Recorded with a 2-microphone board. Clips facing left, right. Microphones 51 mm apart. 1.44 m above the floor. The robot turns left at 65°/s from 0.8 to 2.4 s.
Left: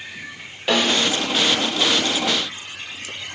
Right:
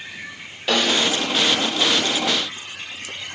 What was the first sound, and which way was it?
A snare drum, 15° left (ahead or behind).